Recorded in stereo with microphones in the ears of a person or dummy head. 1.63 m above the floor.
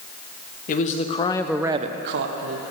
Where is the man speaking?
40° left (ahead or behind), 1.5 m; by 2.6 s 80° right, 1.4 m.